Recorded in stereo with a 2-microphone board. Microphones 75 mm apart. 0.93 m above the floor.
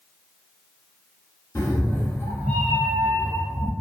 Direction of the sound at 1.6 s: 40° left (ahead or behind).